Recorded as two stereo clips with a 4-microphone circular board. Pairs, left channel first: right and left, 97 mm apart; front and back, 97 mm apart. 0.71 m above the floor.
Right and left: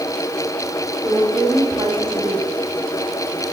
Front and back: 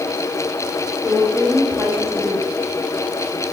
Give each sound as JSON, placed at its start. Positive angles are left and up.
{"t": 1.0, "sound": "a woman speaking", "azimuth_deg": 115, "distance_m": 4.5}